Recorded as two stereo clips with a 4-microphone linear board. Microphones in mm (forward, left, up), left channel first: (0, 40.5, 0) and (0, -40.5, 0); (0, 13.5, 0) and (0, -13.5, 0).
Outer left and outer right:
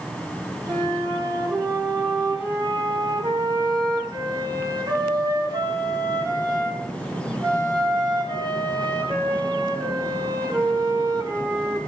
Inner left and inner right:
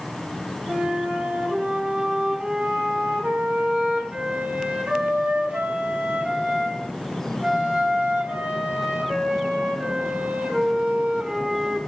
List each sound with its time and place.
0.7 s a flute: 65° right (ahead or behind), 4 m